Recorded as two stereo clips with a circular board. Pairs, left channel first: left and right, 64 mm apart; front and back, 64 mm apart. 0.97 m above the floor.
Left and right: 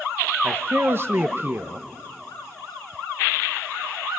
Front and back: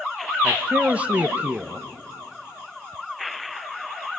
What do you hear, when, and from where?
0.4 s a man speaking: 120° right, 0.9 m